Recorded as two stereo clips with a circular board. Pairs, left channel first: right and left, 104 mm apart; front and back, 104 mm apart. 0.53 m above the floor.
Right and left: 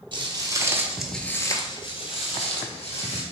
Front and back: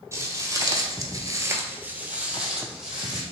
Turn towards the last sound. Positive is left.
turn(degrees=-90)